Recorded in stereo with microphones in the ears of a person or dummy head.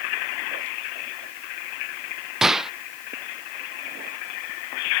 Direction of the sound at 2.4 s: 5° right (ahead or behind).